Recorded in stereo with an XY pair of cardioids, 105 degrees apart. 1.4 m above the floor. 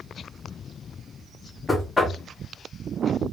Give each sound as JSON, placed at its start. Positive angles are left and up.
{"t": 1.7, "sound": "knocking", "azimuth_deg": 20, "distance_m": 0.9}